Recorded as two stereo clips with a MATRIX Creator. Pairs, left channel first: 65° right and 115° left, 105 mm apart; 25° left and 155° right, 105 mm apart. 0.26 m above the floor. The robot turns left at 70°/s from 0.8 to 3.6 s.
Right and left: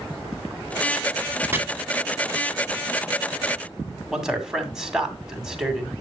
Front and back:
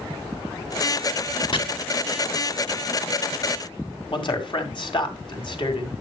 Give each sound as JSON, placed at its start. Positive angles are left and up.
{"t": 1.5, "sound": "chopping", "azimuth_deg": 50, "distance_m": 1.6}
{"t": 4.1, "sound": "a man speaking", "azimuth_deg": 30, "distance_m": 2.0}